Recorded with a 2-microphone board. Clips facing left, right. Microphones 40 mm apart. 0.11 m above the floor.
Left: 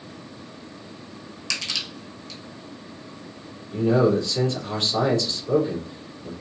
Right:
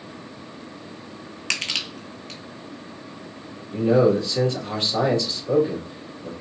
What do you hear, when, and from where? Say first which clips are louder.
1.5 s crushing: right 3 dB; 50° right (ahead or behind), 0.8 m
3.7 s a man speaking: right 2 dB; 15° right (ahead or behind), 1.9 m